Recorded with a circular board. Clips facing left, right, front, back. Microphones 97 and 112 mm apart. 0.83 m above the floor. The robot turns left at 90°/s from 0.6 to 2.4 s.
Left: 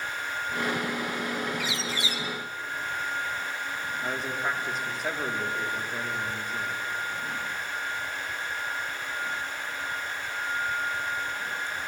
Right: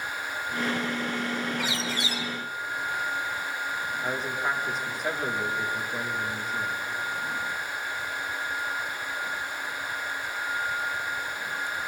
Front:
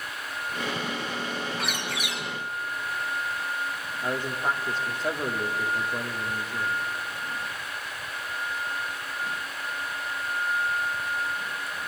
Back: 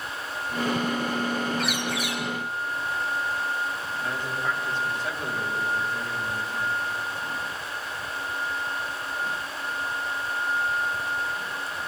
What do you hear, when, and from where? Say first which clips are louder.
1.6 s a bird: right 1 dB, back 4 dB; 85° right, 3.5 m; by 2.2 s 140° right, 3.5 m
4.0 s a man speaking: right 1 dB, front 2 dB; straight ahead, 1.3 m